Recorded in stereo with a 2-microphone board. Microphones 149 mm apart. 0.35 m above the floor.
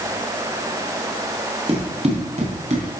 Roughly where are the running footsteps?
Right.